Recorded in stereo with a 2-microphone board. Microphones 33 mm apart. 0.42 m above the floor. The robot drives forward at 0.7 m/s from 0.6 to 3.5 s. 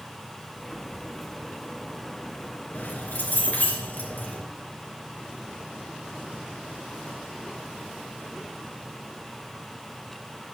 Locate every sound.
2.7 s keys jangling: 80° left, 3.5 m; by 4.4 s 70° left (ahead or behind), 3.5 m